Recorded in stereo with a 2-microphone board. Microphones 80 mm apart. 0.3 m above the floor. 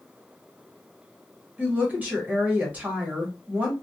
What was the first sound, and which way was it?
A woman speaking, 20° right (ahead or behind).